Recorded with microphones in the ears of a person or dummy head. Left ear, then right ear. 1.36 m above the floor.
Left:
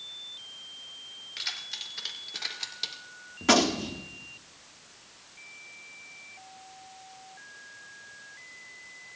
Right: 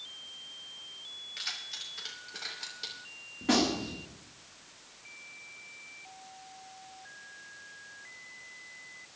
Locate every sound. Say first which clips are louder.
1.4 s keys jangling: left 4 dB; 10° left (ahead or behind), 2.5 m; by 3.0 s 20° left (ahead or behind), 3 m
3.4 s a gunshot: left 5 dB; 50° left (ahead or behind), 1.5 m